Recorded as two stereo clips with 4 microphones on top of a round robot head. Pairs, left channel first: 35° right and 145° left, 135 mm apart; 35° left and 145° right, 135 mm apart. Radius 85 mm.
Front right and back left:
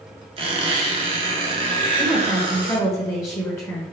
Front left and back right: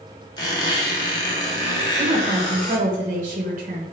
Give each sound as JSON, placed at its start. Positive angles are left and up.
{"t": 0.4, "sound": "a squeak", "azimuth_deg": 95, "distance_m": 0.9}
{"t": 2.0, "sound": "a woman speaking", "azimuth_deg": -110, "distance_m": 1.1}